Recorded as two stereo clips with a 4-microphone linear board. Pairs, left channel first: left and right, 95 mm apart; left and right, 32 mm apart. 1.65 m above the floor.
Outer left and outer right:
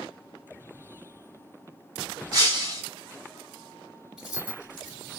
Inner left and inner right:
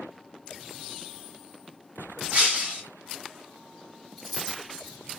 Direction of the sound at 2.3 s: 45° right (ahead or behind).